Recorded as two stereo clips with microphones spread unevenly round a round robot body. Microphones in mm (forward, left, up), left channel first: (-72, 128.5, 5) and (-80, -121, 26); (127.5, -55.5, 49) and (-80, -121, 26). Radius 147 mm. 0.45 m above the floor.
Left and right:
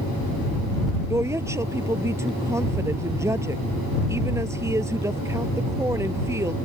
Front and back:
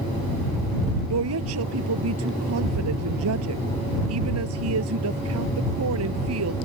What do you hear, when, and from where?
1.1 s a woman speaking: 170° right